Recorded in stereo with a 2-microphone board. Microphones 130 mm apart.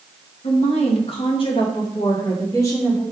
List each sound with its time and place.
0.4 s a woman speaking: 60° left (ahead or behind), 1.6 m; by 3.0 s 25° left (ahead or behind), 2.5 m